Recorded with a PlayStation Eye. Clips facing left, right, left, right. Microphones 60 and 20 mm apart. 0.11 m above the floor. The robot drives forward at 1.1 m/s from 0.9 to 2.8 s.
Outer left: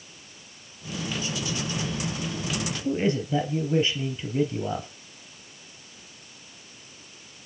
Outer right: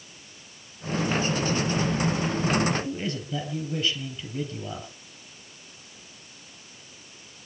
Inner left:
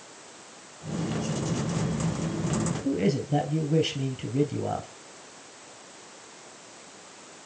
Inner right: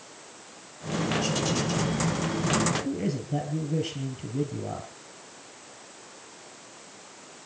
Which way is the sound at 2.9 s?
25° left (ahead or behind).